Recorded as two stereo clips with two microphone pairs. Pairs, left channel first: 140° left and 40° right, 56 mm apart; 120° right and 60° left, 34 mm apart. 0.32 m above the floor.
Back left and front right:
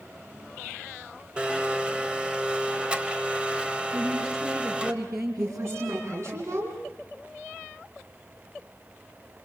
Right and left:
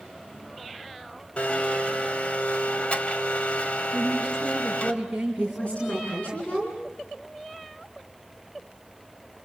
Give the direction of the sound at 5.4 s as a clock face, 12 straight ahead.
2 o'clock.